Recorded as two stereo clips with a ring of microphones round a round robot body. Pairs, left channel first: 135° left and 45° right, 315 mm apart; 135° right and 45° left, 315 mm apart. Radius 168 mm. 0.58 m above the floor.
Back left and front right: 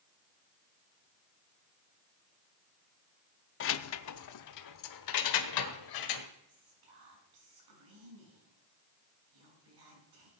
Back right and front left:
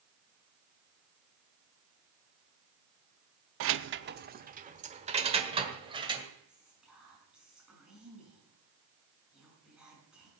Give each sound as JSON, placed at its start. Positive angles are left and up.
{"t": 3.6, "sound": "keys jangling", "azimuth_deg": 85, "distance_m": 0.6}
{"t": 6.5, "sound": "whispering", "azimuth_deg": -40, "distance_m": 6.5}